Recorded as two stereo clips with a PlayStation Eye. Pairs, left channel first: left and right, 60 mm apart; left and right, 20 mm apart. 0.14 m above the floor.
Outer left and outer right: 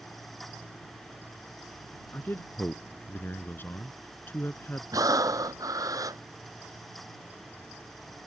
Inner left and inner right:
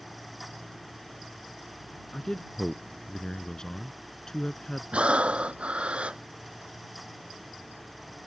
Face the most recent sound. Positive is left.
turn(degrees=-75)  # may be behind; listen again after turning